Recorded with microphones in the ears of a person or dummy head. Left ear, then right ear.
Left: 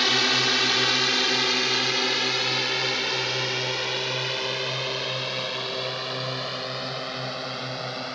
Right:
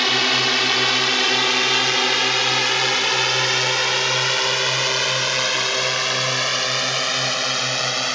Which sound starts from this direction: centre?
A drone, at 0.0 s.